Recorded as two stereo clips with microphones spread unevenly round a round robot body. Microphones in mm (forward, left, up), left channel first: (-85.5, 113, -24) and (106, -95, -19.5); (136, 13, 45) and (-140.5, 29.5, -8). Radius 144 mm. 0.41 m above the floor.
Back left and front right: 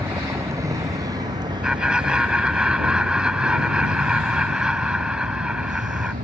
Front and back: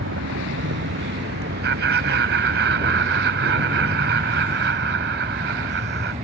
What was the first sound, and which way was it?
A vehicle, 130° right.